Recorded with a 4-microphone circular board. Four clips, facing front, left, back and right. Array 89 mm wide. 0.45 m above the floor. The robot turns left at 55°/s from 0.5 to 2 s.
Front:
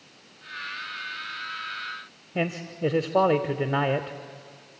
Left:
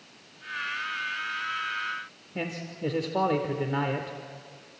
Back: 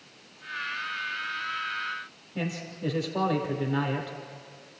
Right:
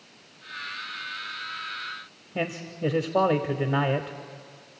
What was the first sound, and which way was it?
A man speaking, 20° right.